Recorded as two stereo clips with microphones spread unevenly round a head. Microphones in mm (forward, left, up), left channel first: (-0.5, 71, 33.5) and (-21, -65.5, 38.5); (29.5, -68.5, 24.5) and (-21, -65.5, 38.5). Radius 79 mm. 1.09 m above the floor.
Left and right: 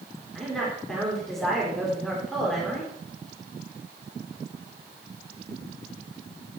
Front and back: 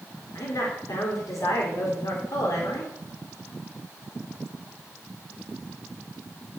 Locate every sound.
0.3 s a woman speaking: 5° right, 3.5 m